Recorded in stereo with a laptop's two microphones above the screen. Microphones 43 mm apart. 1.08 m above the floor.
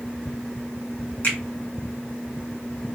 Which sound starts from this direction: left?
A finger snap, at 1.2 s.